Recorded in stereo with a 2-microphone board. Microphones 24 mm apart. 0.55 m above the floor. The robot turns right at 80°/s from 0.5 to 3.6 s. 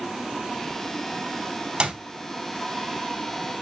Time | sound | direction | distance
1.8 | a clap | 50° right (ahead or behind) | 3.5 m